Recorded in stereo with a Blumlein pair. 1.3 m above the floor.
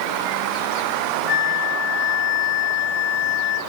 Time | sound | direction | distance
1.3 | a flute | 40° left | 3 m